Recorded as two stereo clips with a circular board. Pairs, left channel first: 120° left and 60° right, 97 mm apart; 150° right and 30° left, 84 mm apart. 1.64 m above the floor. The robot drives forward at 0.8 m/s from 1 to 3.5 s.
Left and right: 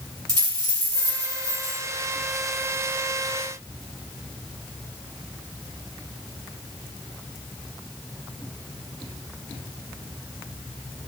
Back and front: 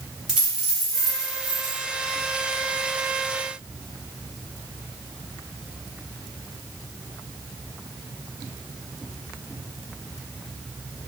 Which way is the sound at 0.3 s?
45° right.